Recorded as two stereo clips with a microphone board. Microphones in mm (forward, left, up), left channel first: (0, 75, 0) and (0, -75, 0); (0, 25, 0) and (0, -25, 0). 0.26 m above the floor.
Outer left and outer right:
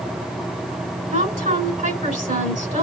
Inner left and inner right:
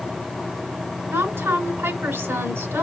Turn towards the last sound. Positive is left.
turn(degrees=-65)  # may be behind; listen again after turning